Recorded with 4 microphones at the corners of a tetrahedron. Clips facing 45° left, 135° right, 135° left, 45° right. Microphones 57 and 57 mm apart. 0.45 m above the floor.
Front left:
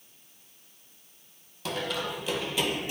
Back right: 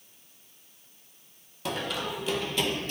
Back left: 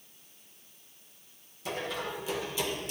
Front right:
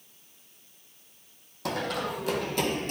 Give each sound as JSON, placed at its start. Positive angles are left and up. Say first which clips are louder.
{"t": 1.6, "sound": "running footsteps", "louder": "even, front right 4 dB", "azimuth_deg": -50, "distance_m": 1.1}